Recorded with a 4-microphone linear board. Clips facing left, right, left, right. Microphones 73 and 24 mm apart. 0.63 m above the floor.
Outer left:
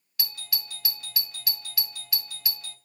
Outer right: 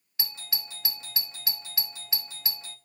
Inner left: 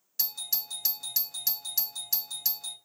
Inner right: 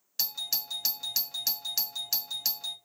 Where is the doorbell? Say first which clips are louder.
Outer left 1 dB, inner right 3 dB; 25° right (ahead or behind), 1.1 m.